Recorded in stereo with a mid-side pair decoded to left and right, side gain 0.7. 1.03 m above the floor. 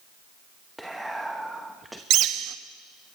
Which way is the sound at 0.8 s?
5° right.